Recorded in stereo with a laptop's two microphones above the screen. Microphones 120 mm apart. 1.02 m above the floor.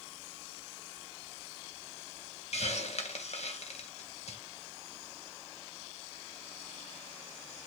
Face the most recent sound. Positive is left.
turn(degrees=65)  # may be behind; listen again after turning